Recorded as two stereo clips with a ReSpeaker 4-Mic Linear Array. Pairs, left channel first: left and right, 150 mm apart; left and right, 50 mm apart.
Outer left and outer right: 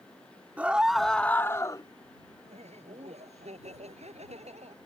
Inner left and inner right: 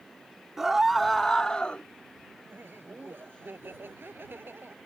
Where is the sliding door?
No sliding door in this recording.